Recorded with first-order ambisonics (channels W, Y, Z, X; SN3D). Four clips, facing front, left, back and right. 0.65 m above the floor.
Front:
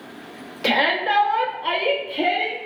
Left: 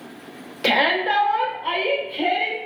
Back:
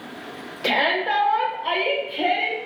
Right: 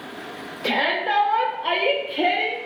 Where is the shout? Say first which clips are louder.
Left 3 dB, front 1 dB; 70° left, 0.8 m; by 2.6 s 65° right, 1.1 m.